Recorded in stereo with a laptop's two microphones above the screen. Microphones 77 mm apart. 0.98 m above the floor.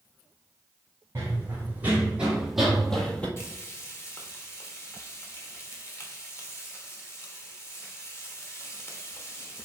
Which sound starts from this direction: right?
Running footsteps, at 1.1 s.